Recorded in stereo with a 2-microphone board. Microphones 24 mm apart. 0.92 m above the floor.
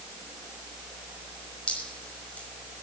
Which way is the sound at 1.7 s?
60° left (ahead or behind).